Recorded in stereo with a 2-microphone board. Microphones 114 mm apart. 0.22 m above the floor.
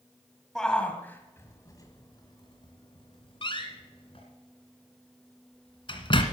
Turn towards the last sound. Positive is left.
turn(degrees=50)  # may be behind; listen again after turning